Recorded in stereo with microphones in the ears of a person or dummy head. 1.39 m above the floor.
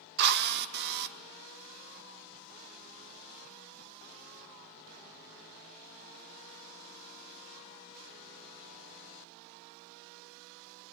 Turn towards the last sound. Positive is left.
turn(degrees=-60)  # may be behind; listen again after turning